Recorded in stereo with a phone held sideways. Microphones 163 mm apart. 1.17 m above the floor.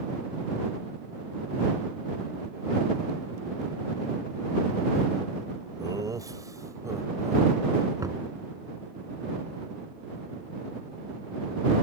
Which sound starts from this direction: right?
Laughter, at 5.8 s.